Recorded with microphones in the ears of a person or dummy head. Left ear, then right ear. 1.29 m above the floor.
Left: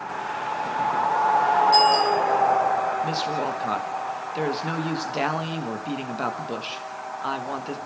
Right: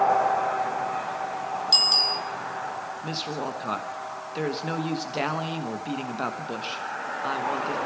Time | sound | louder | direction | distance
1.7 | a bicycle bell | right 3 dB | 50° right (ahead or behind) | 8 m
3.0 | a woman speaking | left 5 dB | 5° left (ahead or behind) | 1.3 m